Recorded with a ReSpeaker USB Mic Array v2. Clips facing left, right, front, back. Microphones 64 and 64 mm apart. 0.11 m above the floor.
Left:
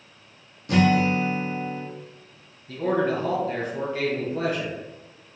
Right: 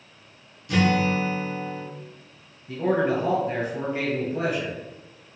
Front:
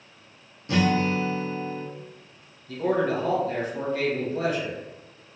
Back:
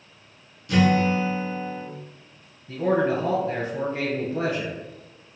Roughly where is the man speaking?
Behind right.